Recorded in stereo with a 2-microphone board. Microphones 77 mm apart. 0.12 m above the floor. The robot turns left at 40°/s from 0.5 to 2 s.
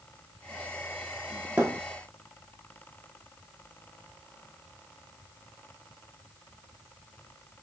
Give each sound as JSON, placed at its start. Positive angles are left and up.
{"t": 1.6, "sound": "a thud", "side_deg": -20, "distance_m": 2.5}